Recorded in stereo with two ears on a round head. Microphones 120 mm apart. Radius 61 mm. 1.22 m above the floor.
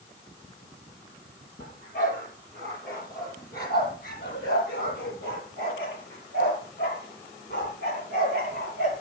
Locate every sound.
1.6 s a dog barking: 65° left (ahead or behind), 9 m; by 8.9 s 80° left, 7.5 m